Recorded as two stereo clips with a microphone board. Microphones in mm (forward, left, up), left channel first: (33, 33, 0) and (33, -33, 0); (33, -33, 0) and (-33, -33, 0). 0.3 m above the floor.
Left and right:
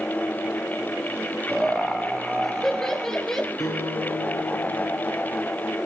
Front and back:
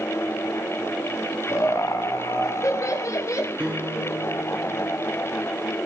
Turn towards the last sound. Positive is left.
turn(degrees=110)